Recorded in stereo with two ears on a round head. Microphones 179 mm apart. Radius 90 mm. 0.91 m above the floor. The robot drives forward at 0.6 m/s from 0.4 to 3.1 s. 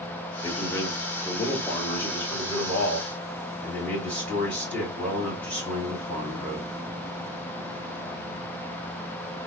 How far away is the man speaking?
About 1.2 m.